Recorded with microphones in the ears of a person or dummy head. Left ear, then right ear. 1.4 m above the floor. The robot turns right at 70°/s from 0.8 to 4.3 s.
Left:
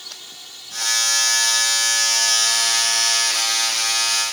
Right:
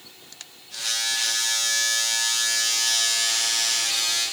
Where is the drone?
45° left (ahead or behind); by 4.3 s 65° right (ahead or behind).